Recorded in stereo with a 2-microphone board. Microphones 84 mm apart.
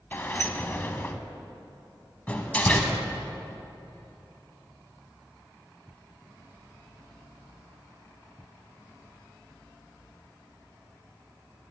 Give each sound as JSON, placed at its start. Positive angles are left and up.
{"t": 0.1, "sound": "a sliding door", "side_deg": 25, "distance_m": 0.5}
{"t": 2.3, "sound": "a door slam", "side_deg": 15, "distance_m": 0.8}